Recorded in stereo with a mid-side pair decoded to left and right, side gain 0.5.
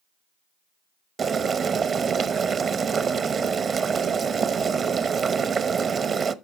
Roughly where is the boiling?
Ahead right.